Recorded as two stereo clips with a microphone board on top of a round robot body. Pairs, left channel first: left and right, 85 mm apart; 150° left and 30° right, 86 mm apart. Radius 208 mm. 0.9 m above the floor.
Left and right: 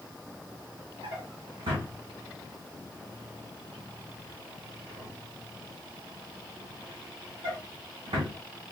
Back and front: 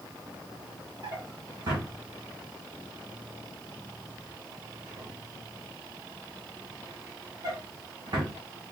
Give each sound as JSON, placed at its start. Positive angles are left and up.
{"t": 1.0, "sound": "a drawer", "azimuth_deg": -75, "distance_m": 1.1}